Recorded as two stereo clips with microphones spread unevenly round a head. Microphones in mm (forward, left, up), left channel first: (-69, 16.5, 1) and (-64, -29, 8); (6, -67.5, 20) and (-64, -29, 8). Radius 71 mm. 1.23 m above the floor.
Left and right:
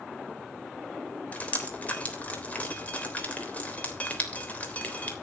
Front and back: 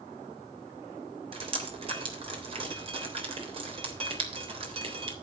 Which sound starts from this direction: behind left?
Dripping, at 1.3 s.